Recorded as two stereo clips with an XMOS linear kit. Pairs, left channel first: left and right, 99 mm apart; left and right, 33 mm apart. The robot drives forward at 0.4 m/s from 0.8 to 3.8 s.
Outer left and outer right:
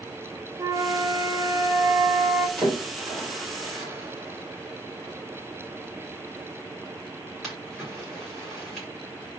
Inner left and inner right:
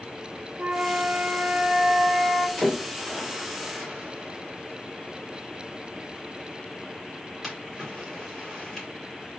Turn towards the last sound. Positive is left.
turn(degrees=0)  # may be behind; listen again after turning